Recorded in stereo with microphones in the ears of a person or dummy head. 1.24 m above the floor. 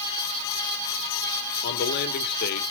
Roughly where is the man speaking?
Left.